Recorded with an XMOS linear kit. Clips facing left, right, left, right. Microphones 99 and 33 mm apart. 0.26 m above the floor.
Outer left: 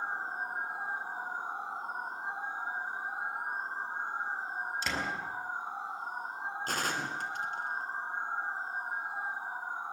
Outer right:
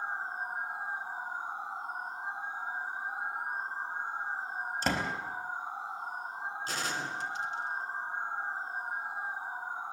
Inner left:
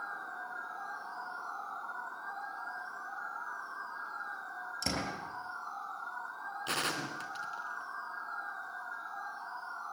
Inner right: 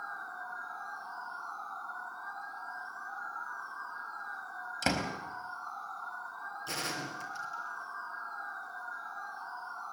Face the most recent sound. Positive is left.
turn(degrees=50)  # may be behind; listen again after turning